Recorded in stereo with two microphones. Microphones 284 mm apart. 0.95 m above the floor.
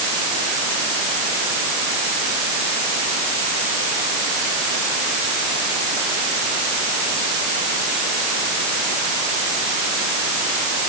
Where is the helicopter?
I don't hear a helicopter.